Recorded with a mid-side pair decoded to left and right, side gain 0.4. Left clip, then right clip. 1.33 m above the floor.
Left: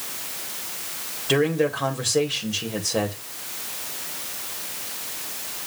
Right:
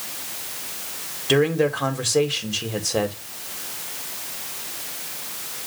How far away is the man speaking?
About 2 m.